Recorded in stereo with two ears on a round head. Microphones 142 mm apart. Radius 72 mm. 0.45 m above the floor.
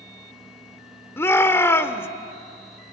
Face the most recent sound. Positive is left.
turn(degrees=15)  # may be behind; listen again after turning